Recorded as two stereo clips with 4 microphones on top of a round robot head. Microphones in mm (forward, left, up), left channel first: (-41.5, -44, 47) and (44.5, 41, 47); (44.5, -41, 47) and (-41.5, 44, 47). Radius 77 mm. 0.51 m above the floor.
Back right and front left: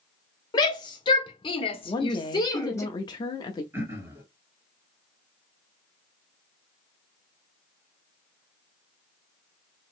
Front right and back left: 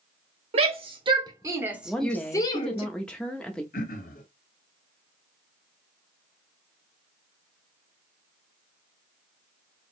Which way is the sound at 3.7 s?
30° right.